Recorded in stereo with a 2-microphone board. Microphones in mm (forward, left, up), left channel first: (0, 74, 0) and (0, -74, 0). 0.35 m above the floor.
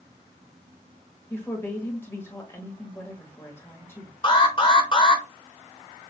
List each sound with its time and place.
1.3 s a woman speaking: 15° left (ahead or behind), 1.3 m
4.2 s an alarm: 35° left (ahead or behind), 1.0 m